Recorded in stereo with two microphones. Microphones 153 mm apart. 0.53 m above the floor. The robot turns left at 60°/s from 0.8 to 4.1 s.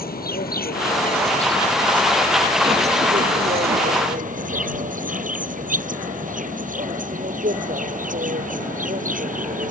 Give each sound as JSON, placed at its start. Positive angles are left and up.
{"t": 0.0, "sound": "an insect", "azimuth_deg": 80}